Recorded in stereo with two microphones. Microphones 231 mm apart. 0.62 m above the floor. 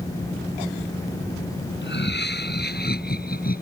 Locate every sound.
1.8 s laughter: 50° left (ahead or behind); by 3.6 s 40° left (ahead or behind)